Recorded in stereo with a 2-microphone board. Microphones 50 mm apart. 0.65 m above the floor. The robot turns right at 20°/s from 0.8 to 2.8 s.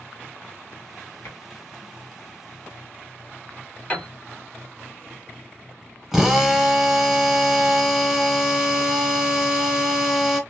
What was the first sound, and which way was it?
Tapping, 60° left (ahead or behind).